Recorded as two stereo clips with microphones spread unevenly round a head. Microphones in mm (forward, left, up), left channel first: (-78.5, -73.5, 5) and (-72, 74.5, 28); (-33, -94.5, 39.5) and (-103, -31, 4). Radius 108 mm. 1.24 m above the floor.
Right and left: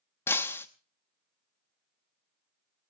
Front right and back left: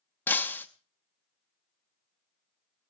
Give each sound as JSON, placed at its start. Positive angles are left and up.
{"t": 0.3, "sound": "breaking glass", "azimuth_deg": -10, "distance_m": 0.7}